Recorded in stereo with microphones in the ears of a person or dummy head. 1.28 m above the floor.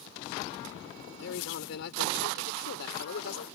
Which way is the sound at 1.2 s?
70° left (ahead or behind).